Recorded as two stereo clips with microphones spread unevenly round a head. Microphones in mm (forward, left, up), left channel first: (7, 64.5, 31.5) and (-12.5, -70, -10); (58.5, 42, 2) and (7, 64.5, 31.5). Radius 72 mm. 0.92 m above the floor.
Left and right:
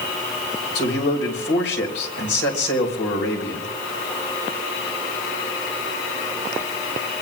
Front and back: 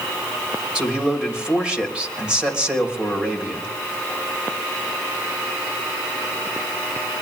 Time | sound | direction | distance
0.8 | a man speaking | 75° left | 3.5 m